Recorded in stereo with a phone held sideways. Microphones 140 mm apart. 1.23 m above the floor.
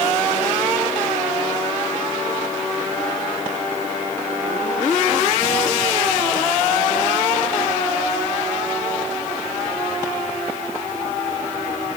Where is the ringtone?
I don't hear a ringtone.